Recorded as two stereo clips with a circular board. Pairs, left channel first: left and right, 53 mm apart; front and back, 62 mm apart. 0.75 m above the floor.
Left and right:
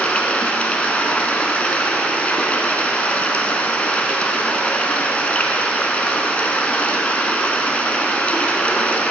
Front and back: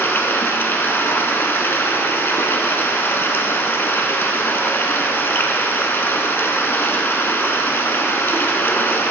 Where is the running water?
35° left, 0.9 m.